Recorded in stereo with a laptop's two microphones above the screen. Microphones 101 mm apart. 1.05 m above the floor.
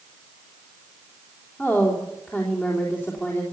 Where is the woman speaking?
20° left (ahead or behind), 3.5 m.